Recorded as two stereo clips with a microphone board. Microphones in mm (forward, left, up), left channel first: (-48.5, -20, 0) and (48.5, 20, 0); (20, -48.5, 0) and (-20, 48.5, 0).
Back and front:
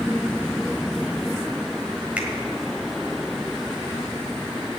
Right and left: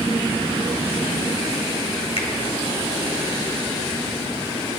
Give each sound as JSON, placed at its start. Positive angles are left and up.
{"t": 2.2, "sound": "a finger snap", "azimuth_deg": -55, "distance_m": 1.7}